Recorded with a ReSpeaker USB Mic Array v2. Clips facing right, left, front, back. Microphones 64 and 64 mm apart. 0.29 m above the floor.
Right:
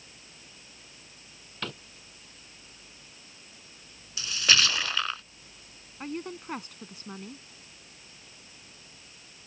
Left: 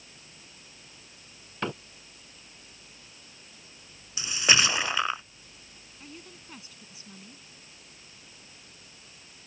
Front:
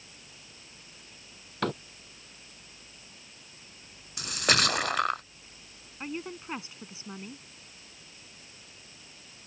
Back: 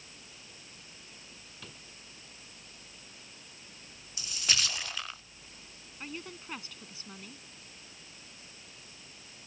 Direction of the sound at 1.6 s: 20° left.